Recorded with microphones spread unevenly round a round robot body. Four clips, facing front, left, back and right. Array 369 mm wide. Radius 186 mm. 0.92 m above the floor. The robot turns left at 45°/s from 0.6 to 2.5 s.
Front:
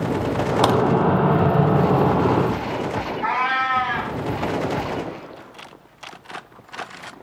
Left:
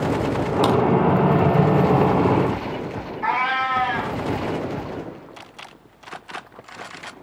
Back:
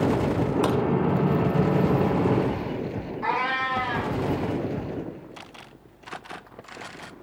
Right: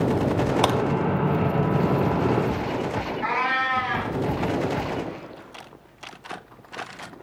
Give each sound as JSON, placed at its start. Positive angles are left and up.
{"t": 0.6, "sound": "a crack", "azimuth_deg": -25, "distance_m": 1.1}
{"t": 3.2, "sound": "a cat meowing", "azimuth_deg": -160, "distance_m": 2.5}